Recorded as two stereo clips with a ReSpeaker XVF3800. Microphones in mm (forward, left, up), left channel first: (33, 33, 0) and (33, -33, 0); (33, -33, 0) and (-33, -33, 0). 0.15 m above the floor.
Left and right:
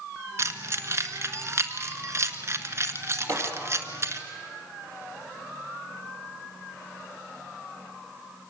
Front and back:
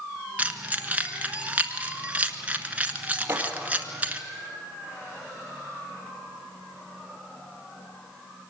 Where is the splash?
120° right, 3 m.